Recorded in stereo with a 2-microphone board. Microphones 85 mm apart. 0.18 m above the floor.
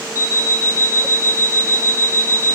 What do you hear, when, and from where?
0.1 s an alarm clock: 35° left (ahead or behind), 2 m